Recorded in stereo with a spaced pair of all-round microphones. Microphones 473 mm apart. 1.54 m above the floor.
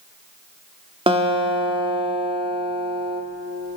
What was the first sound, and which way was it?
A guitar, 10° right (ahead or behind).